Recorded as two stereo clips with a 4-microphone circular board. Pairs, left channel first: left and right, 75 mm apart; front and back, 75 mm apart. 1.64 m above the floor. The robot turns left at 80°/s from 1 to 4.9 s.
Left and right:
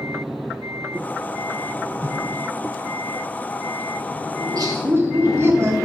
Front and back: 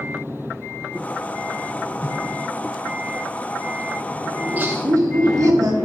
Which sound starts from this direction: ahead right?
A whoosh, at 2.0 s.